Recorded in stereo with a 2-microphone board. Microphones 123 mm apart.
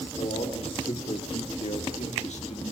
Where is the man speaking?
70° left (ahead or behind), 4.5 m; by 2.7 s 55° left (ahead or behind), 3 m.